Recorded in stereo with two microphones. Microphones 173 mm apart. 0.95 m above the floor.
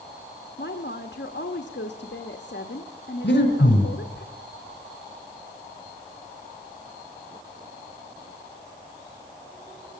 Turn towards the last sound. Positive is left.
turn(degrees=70)  # may be behind; listen again after turning